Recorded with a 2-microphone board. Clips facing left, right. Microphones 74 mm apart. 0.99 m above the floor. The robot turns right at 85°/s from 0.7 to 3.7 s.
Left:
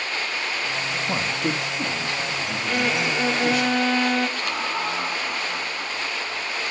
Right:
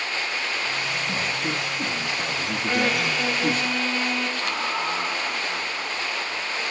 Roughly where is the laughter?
Centre.